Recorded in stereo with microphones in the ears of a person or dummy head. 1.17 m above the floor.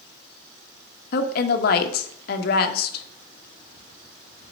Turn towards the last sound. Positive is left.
turn(degrees=55)  # may be behind; listen again after turning